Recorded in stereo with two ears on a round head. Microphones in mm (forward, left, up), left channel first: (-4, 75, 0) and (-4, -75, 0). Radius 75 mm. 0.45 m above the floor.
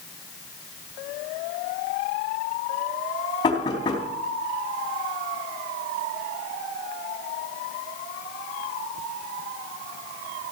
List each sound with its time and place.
3.4 s knocking: 25° left (ahead or behind), 3.5 m